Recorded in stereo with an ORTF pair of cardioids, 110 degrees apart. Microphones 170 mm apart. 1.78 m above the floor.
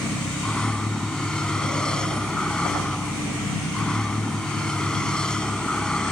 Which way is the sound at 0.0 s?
5° left.